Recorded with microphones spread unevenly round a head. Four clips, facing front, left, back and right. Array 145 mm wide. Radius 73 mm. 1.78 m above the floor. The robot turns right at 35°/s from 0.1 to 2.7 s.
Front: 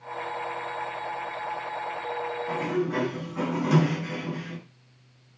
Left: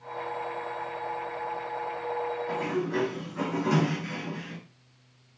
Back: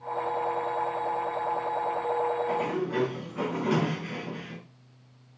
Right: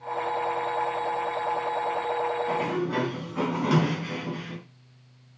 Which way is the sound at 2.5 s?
70° right.